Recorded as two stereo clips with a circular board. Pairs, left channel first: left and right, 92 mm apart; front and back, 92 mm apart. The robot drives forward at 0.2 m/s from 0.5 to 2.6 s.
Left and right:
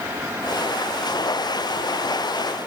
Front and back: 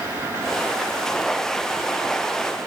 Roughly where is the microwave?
I don't hear a microwave.